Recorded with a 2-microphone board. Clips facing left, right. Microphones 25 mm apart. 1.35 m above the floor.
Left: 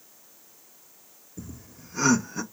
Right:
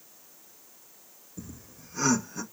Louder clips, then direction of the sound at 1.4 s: Left 2 dB; 5° left (ahead or behind).